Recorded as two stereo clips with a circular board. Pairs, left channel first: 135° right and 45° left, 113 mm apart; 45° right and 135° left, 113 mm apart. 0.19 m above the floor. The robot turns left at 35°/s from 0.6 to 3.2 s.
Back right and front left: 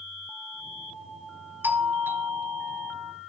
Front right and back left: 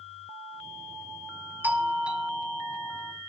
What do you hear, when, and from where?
1.6 s a doorbell: 90° left, 1.8 m; by 3.1 s 35° left, 1.8 m